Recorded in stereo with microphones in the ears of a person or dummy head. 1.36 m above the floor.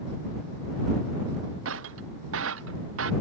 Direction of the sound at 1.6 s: 80° right.